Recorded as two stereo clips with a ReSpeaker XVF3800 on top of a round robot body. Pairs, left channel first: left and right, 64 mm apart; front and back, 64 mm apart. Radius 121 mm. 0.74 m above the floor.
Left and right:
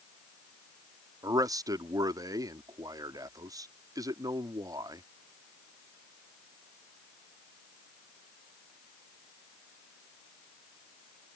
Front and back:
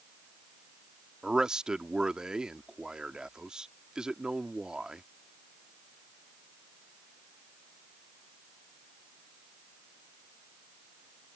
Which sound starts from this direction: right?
A man speaking, at 1.2 s.